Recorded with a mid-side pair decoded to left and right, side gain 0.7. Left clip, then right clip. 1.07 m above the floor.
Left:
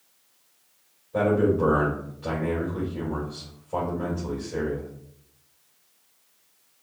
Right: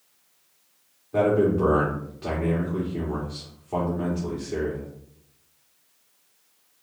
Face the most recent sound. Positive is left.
turn(degrees=-65)